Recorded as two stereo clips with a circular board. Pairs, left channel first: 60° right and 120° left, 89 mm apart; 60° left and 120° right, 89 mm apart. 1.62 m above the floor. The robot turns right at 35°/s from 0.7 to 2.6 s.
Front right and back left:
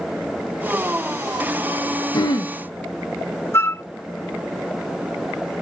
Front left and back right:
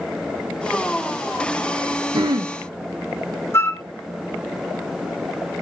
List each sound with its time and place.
2.1 s throat clearing: 95° right, 1.6 m; by 2.5 s 85° right, 1.6 m
3.5 s a flute: straight ahead, 0.8 m